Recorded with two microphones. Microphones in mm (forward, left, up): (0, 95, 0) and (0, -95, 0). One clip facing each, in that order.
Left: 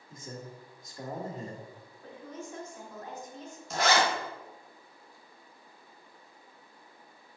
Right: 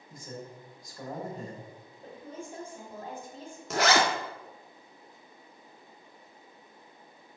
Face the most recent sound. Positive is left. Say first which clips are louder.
# right 2 dB
turn(degrees=-85)